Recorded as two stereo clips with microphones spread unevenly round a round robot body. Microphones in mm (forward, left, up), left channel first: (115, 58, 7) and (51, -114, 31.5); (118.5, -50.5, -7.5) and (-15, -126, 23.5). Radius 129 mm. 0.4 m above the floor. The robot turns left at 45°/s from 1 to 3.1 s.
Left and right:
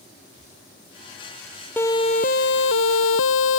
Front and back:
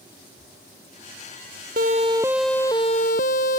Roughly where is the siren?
Behind left.